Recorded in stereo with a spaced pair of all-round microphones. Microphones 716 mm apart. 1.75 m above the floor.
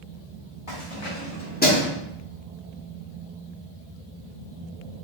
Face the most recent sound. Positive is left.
turn(degrees=0)  # may be behind; listen again after turning